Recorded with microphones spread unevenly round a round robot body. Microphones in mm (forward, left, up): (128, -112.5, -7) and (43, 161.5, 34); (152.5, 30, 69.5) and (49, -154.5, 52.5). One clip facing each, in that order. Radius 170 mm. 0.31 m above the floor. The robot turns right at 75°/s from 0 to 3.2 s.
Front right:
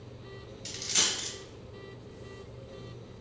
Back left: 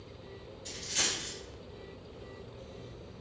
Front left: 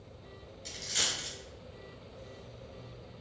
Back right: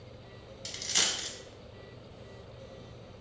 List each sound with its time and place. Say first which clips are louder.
0.7 s a dropped coin: front right 1 dB, back right 2 dB; 125° right, 1.0 m; by 1.3 s 75° right, 1.0 m